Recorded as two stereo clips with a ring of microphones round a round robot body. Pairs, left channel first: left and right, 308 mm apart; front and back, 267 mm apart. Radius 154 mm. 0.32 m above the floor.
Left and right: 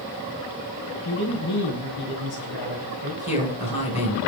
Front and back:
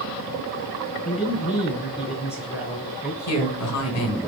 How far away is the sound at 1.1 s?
About 2.5 m.